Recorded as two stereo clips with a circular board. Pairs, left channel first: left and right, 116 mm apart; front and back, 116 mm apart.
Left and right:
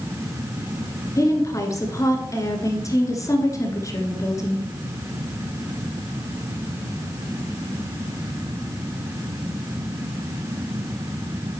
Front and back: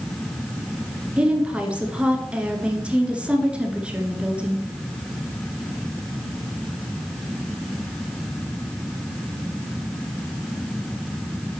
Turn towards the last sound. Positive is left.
turn(degrees=110)